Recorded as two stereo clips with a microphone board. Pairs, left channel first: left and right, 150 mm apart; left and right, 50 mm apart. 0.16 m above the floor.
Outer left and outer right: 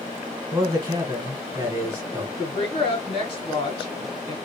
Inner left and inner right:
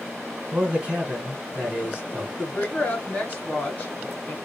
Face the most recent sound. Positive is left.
turn(degrees=35)  # may be behind; listen again after turning